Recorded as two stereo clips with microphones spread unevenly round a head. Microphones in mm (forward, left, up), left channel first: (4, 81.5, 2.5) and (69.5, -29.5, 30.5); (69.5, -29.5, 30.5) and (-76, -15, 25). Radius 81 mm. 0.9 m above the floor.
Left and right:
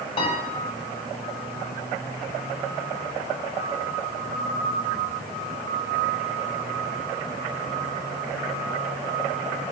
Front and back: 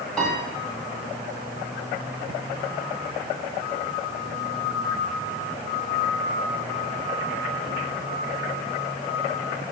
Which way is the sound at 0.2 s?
85° left.